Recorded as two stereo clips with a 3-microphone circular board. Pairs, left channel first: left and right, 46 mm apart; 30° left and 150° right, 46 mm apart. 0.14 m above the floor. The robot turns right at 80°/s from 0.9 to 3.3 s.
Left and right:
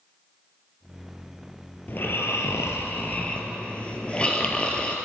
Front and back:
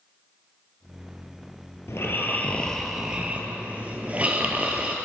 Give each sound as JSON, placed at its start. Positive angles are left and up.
{"t": 1.9, "sound": "snoring", "azimuth_deg": 40, "distance_m": 1.9}